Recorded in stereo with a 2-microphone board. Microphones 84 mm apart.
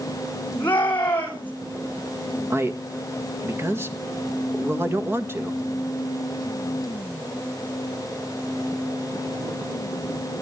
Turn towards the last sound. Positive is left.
turn(degrees=-30)  # may be behind; listen again after turning